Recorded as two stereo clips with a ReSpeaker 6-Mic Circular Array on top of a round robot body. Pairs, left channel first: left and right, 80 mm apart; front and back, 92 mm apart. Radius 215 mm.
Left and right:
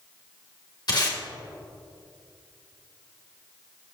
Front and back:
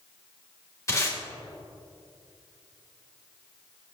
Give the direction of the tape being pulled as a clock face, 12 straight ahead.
10 o'clock.